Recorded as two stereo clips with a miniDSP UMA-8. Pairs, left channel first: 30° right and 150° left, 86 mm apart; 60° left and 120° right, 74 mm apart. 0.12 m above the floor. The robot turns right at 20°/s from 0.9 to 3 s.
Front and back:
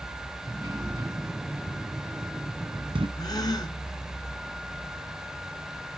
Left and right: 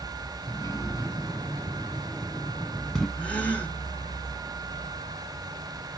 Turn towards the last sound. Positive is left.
turn(degrees=-10)